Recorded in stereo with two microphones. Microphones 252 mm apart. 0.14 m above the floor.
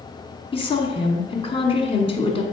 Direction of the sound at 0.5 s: 20° left (ahead or behind).